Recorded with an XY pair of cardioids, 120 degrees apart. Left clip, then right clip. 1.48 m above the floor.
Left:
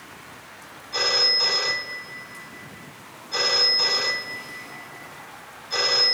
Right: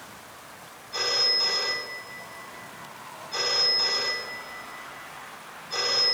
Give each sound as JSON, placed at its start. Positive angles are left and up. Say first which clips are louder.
{"t": 0.9, "sound": "a phone ringing", "louder": "left 4 dB", "azimuth_deg": 20, "distance_m": 2.5}